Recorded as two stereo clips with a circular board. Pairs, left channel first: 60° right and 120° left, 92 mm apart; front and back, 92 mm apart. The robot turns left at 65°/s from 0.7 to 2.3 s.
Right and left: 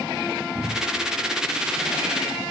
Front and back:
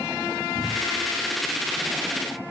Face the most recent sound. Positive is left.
turn(degrees=85)